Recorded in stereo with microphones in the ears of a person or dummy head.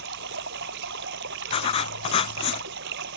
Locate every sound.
0.0 s running water: 60° right (ahead or behind)
1.5 s writing: 30° left (ahead or behind)